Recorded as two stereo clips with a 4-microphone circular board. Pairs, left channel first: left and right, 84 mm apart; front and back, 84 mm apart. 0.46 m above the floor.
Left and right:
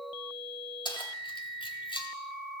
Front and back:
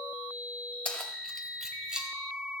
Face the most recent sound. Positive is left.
turn(degrees=100)